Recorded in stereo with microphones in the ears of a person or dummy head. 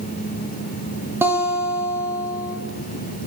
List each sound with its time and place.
1.2 s a guitar: 15° right (ahead or behind), 0.8 m